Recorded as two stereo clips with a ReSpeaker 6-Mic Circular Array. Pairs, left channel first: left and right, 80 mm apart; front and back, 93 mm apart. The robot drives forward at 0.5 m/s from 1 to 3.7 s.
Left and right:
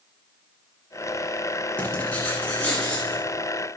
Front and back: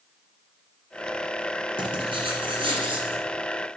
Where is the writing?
165° left, 1.4 m; by 3.3 s 170° left, 2 m.